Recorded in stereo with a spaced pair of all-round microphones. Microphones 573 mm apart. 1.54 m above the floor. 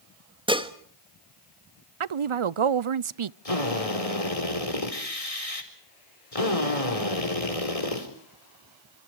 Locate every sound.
0.5 s dishes clattering: 10° right (ahead or behind), 1.4 m
2.0 s a woman speaking: 60° right (ahead or behind), 0.5 m
3.5 s a drill: 80° left, 4.5 m